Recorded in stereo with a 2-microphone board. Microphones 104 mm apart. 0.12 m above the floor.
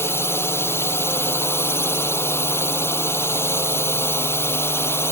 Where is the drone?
25° left (ahead or behind).